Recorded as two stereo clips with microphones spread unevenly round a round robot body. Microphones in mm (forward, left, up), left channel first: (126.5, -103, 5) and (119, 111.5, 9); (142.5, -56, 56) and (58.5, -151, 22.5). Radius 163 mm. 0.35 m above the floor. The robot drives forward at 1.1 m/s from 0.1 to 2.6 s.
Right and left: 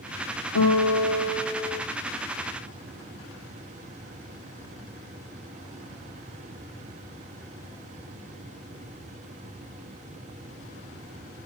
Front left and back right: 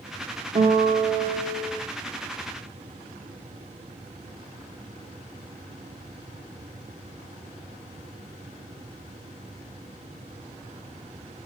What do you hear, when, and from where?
0.6 s a guitar: 100° right, 5.5 m; by 1.8 s 115° right, 6 m